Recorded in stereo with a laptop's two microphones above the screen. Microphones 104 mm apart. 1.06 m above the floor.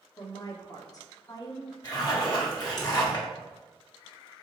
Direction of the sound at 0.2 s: 35° left (ahead or behind).